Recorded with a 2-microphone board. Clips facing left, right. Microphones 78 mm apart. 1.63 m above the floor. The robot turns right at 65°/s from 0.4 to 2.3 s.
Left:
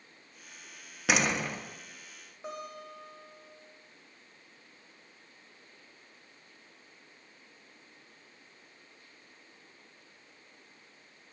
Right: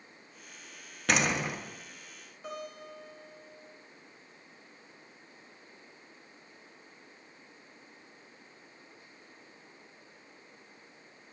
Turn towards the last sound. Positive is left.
turn(degrees=25)  # may be behind; listen again after turning